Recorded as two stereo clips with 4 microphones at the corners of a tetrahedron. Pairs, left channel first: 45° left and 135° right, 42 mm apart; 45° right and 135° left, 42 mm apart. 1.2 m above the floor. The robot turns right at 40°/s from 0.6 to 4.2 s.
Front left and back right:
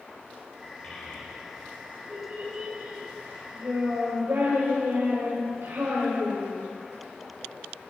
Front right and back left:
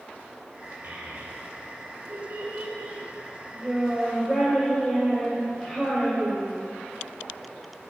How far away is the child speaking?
About 3.5 m.